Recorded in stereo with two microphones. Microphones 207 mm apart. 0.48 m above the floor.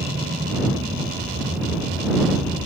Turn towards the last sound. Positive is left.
turn(degrees=-45)  # may be behind; listen again after turning